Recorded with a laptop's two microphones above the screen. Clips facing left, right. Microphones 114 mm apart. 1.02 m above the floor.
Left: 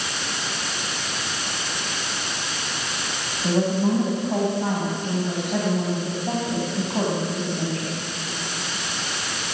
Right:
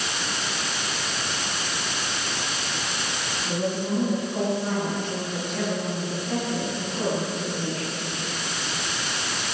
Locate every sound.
3.4 s a woman speaking: 85° left, 7.5 m